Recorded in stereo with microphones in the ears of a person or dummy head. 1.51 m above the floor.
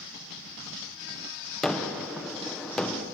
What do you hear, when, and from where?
1.6 s a gunshot: 10° left (ahead or behind), 0.5 m